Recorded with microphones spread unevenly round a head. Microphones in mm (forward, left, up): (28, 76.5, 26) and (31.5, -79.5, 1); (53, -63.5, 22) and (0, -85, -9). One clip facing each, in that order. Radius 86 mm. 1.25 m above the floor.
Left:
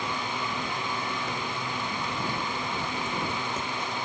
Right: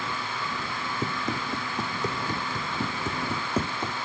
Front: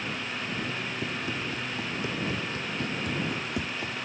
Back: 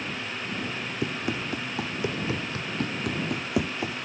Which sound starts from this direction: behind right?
Running footsteps, at 1.0 s.